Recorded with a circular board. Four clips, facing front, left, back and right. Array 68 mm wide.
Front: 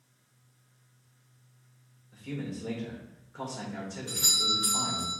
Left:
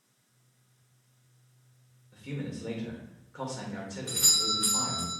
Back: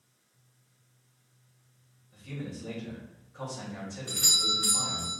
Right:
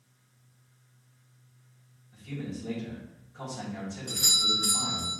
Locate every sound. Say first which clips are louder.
2.1 s a man speaking: even, front 3 dB; 55° left, 2.5 m
4.1 s a doorbell: right 3 dB, even; 85° left, 2 m